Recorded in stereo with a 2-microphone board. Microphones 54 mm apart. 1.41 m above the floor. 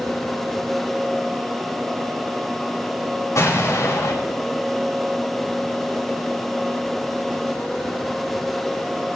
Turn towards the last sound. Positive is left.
turn(degrees=65)  # may be behind; listen again after turning